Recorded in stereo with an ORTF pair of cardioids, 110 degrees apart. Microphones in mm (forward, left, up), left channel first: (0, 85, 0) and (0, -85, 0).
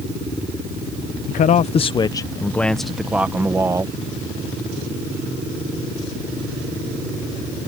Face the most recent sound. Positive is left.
turn(degrees=-20)